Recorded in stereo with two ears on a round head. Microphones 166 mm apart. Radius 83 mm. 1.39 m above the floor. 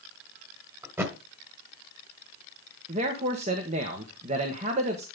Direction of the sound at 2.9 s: 40° right (ahead or behind).